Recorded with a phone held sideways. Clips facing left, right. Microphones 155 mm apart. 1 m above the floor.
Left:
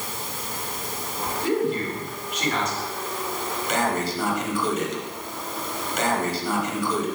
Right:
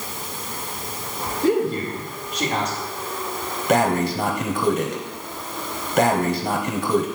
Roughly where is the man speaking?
Right.